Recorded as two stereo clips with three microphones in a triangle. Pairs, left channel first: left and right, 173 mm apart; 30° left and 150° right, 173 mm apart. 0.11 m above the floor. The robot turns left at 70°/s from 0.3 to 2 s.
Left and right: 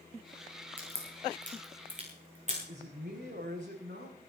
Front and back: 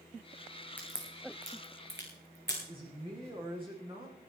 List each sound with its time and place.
0.8 s a crack: 50° right, 7.5 m; by 2.6 s 135° right, 7.5 m
2.7 s a man speaking: 90° right, 7.5 m